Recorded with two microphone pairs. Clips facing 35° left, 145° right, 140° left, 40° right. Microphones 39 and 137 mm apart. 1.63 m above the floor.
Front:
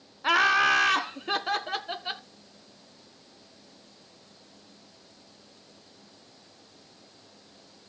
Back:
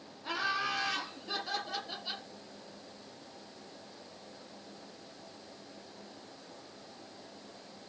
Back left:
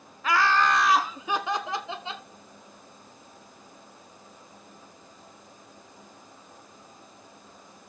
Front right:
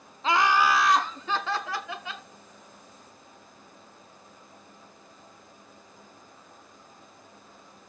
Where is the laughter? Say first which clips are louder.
Front 12 dB, front right 1 dB; 20° left, 0.8 m; by 2.2 s 75° left, 1.9 m.